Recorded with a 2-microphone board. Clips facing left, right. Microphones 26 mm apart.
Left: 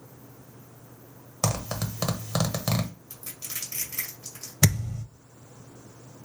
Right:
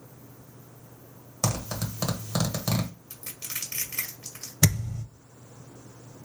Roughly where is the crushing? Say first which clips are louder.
Right 1 dB; right.